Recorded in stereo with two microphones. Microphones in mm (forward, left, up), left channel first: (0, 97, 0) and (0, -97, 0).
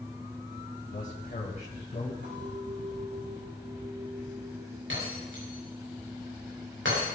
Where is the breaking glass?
90° right, 7.5 m.